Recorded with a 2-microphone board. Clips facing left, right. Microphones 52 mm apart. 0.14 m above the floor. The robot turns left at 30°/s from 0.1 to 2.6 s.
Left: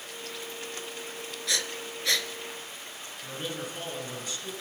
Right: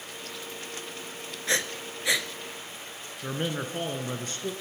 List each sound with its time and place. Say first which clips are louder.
1.5 s breathing: right 4 dB; 30° right (ahead or behind), 0.6 m; by 2.3 s 10° right (ahead or behind), 0.6 m
3.2 s a man speaking: right 5 dB; 45° right (ahead or behind), 1.4 m